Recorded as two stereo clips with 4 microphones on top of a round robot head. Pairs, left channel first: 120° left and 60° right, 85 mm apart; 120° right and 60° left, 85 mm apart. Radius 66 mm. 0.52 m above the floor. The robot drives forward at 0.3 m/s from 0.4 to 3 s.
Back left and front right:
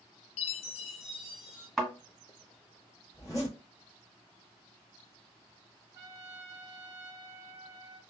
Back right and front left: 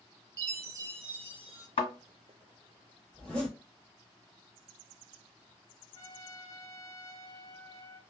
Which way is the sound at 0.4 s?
110° left.